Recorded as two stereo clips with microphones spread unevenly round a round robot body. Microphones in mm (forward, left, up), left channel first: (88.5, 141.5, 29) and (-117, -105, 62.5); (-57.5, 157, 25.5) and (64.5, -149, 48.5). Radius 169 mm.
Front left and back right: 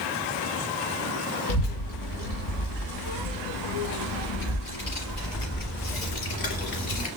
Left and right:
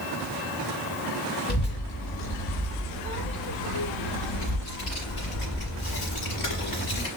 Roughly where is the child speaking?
Ahead left.